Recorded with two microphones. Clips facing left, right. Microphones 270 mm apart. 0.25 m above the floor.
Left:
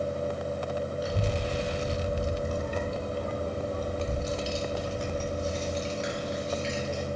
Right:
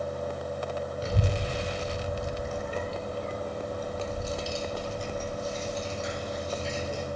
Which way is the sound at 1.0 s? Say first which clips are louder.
Left 1 dB; 25° right (ahead or behind).